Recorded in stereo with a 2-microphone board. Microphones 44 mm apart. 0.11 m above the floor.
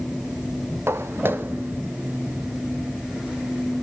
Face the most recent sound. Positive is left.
turn(degrees=-20)  # may be behind; listen again after turning